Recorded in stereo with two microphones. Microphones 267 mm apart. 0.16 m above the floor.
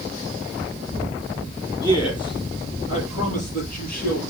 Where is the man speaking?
15° left (ahead or behind), 5 m; by 4.2 s 35° left (ahead or behind), 5 m.